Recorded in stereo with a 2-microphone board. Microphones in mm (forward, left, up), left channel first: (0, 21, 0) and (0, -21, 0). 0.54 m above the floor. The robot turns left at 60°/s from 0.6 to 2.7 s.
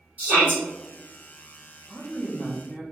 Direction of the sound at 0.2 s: 40° right (ahead or behind).